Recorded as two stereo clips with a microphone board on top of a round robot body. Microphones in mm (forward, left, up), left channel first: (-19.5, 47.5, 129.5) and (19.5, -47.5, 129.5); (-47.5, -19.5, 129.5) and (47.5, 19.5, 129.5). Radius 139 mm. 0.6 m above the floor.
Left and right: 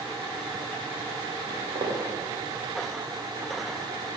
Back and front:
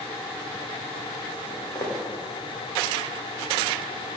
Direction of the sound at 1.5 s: 100° right.